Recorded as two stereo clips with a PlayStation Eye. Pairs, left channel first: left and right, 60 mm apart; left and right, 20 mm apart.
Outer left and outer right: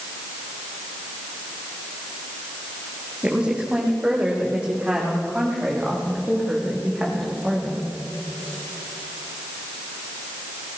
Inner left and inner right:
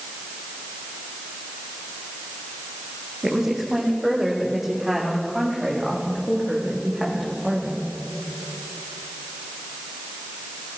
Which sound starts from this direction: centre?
A woman speaking, at 3.2 s.